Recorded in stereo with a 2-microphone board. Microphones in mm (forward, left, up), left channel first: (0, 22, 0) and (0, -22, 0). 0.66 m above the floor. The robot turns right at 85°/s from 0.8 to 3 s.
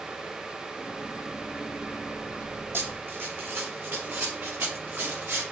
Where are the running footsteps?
55° right (ahead or behind), 1.1 m; by 5.4 s 65° right (ahead or behind), 3.5 m.